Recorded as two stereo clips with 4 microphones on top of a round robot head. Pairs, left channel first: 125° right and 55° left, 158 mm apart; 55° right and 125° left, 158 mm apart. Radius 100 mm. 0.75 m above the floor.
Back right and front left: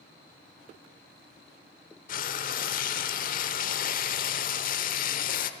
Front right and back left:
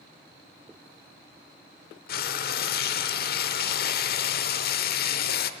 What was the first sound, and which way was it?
Frying, 85° right.